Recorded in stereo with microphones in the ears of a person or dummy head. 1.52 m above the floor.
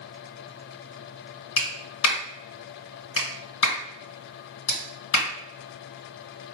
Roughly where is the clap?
Left.